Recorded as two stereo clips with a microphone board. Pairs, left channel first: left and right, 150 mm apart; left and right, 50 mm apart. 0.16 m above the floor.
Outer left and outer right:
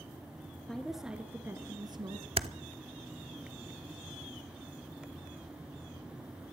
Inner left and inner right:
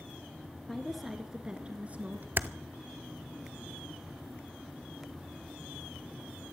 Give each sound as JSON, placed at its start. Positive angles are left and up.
{"t": 0.7, "sound": "a woman speaking", "side_deg": 5, "distance_m": 2.0}
{"t": 2.4, "sound": "typing on a keyboard", "side_deg": -45, "distance_m": 0.5}